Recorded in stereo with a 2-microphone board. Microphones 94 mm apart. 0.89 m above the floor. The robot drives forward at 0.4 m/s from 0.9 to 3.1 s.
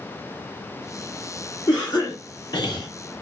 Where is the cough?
40° left (ahead or behind), 0.8 m; by 2.9 s 50° left (ahead or behind), 0.7 m.